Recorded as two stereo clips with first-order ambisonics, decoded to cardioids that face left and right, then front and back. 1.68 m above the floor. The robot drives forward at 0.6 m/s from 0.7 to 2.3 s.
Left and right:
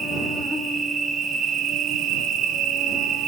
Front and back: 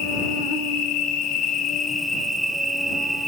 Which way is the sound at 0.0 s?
20° right.